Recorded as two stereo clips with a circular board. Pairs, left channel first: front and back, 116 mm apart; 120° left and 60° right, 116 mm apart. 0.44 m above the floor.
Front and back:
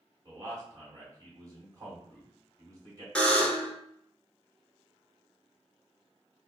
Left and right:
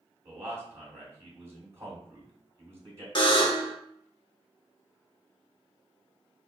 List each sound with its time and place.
0.2 s a man speaking: 125° right, 2 m
3.1 s a buzzer: 80° left, 1.2 m